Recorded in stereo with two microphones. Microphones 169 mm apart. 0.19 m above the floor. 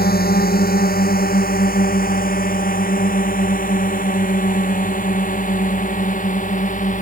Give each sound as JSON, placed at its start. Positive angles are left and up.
{"t": 0.0, "sound": "a drone", "side_deg": 75}